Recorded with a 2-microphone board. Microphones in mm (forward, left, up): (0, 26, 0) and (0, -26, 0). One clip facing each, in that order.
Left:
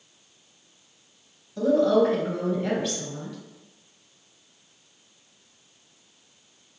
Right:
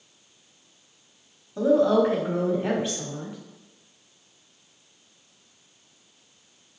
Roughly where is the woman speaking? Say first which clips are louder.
Even; right.